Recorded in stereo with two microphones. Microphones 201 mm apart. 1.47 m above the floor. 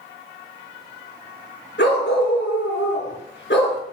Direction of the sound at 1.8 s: 65° left (ahead or behind).